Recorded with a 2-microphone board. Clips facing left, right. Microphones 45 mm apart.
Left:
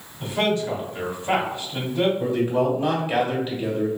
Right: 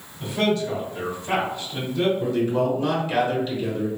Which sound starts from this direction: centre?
A man speaking, at 2.2 s.